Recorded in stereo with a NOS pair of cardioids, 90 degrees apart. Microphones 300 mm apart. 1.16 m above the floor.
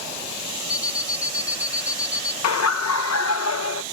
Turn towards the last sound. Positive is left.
turn(degrees=70)